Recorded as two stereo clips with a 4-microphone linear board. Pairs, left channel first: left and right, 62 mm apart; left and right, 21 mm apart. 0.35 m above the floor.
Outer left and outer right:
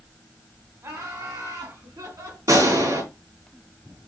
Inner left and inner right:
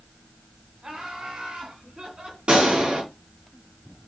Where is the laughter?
50° right (ahead or behind), 2.5 m; by 2.4 s 65° right (ahead or behind), 3.5 m.